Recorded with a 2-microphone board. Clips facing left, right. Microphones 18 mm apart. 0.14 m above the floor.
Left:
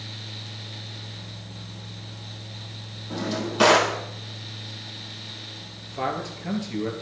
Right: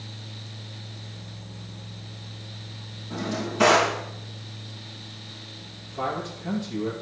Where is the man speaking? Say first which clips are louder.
Left 1 dB; 30° left (ahead or behind), 2.5 m.